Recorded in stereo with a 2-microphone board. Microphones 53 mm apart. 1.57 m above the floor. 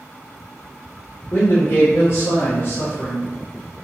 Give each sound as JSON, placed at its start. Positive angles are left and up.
{"t": 1.3, "sound": "a man speaking", "side_deg": 50, "distance_m": 0.9}